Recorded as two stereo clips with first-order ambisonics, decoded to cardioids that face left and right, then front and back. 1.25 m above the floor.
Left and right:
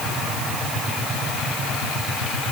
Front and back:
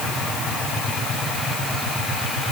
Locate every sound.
Only background noise.